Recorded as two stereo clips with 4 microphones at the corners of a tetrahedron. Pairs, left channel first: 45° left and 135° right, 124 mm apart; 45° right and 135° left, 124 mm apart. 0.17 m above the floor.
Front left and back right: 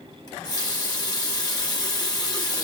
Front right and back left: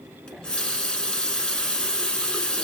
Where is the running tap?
30° left, 0.9 m.